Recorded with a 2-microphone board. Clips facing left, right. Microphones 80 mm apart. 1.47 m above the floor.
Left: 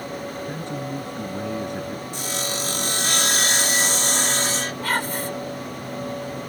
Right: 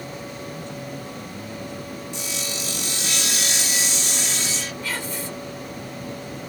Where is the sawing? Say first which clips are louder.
Left 4 dB; 55° left (ahead or behind).